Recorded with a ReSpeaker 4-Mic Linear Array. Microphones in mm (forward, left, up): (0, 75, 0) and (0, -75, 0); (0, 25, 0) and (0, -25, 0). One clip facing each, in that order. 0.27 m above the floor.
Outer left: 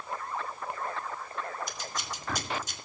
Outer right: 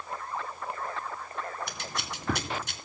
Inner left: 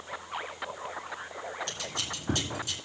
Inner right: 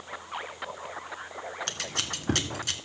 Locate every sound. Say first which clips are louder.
1.7 s scissors: outer right 1 dB, inner right 2 dB; 65° right (ahead or behind), 0.8 m